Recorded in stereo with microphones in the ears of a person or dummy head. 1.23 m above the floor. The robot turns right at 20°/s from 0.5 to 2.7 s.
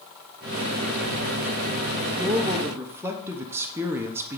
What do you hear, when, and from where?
2.2 s a man speaking: 20° right (ahead or behind), 0.5 m; by 4.4 s 15° right (ahead or behind), 0.5 m